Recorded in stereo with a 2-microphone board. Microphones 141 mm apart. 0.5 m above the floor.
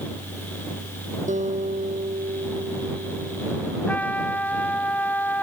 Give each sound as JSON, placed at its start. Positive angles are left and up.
{"t": 1.3, "sound": "a guitar", "side_deg": -60}
{"t": 3.9, "sound": "a trumpet", "side_deg": 10}